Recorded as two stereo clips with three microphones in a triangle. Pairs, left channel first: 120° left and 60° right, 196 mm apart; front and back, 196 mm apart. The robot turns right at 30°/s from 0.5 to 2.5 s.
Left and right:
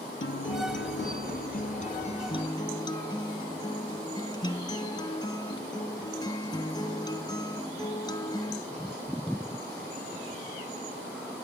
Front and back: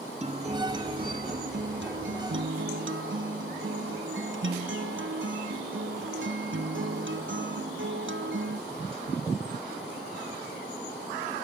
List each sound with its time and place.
0.2 s a guitar: 130° left, 0.7 m; by 8.6 s 170° right, 0.7 m